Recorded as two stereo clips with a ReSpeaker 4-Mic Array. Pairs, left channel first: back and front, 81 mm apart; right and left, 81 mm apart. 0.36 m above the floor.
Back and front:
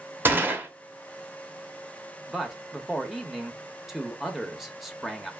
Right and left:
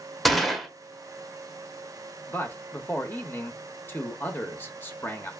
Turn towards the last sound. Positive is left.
turn(degrees=-85)